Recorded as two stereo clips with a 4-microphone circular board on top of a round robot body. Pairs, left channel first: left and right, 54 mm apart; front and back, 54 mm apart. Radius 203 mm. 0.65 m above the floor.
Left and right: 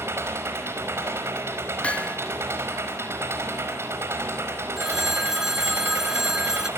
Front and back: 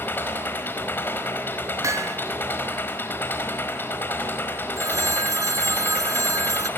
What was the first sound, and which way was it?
An engine running, 50° right.